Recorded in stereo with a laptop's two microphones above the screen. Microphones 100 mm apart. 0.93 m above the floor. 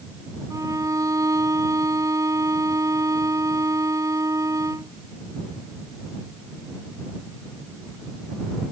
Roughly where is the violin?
Right.